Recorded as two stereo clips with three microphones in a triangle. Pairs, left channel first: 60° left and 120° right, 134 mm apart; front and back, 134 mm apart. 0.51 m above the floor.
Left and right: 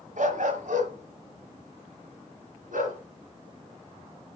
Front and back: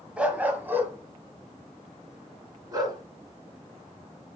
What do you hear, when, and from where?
0.2 s a dog barking: 100° right, 1.3 m; by 3.0 s 115° right, 2.5 m